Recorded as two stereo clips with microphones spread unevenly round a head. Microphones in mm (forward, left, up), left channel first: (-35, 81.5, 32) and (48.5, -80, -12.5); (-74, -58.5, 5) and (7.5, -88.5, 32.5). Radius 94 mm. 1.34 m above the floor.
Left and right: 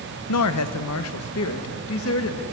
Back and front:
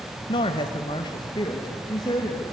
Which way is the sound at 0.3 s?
125° left.